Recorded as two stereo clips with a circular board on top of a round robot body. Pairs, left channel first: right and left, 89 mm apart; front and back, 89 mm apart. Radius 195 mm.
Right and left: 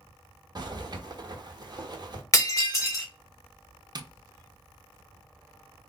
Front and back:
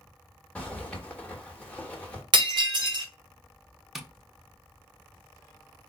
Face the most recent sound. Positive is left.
turn(degrees=95)